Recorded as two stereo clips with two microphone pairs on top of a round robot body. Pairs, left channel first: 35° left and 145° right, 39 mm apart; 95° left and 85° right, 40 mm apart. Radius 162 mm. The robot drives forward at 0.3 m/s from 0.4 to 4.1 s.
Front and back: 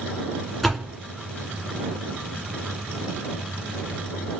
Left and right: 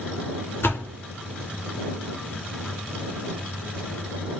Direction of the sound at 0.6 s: 120° left.